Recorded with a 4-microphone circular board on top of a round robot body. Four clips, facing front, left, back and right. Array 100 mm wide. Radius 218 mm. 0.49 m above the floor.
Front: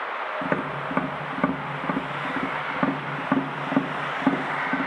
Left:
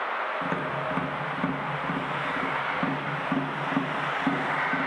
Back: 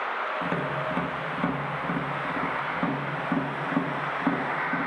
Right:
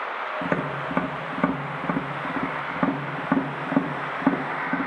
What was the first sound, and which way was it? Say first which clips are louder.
Tapping: right 2 dB, front 1 dB; 40° right.